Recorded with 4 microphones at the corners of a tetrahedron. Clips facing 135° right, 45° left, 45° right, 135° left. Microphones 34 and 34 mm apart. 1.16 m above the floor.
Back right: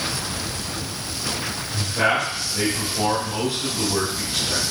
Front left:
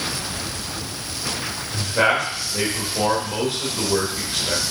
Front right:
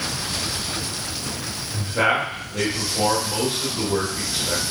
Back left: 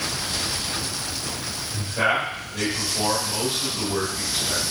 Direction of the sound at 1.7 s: 10° left.